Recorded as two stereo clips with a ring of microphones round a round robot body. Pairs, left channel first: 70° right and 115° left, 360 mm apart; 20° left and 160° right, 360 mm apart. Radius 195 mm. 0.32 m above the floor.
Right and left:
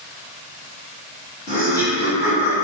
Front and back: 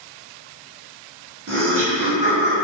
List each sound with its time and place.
1.5 s laughter: 135° right, 1.4 m; by 2.6 s 65° right, 1.3 m